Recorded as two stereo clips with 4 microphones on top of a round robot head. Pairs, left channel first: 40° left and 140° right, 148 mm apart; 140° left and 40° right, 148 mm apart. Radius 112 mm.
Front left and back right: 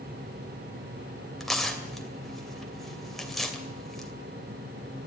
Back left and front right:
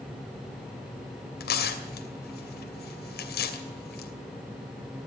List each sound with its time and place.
1.4 s tearing paper: 130° left, 2.5 m